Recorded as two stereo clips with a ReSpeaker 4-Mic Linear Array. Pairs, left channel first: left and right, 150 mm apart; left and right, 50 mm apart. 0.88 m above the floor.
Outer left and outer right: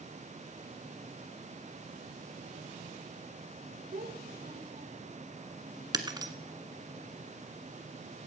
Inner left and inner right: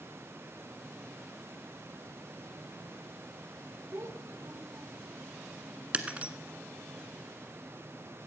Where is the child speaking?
80° right, 1.8 m; by 5.2 s 45° right (ahead or behind), 1.7 m.